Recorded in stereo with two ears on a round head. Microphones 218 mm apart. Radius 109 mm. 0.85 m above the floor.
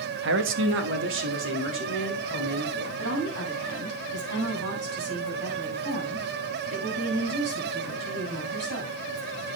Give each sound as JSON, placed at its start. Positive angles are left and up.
{"t": 0.2, "sound": "a man speaking", "side_deg": -50, "distance_m": 1.2}
{"t": 3.0, "sound": "a woman speaking", "side_deg": -65, "distance_m": 6.5}